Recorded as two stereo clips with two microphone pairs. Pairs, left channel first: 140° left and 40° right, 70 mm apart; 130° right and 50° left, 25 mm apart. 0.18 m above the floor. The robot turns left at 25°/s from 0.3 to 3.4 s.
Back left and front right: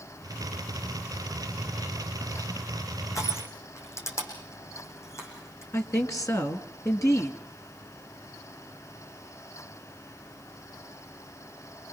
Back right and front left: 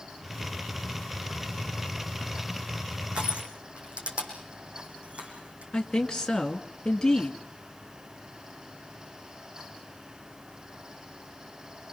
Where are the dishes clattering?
I don't hear dishes clattering.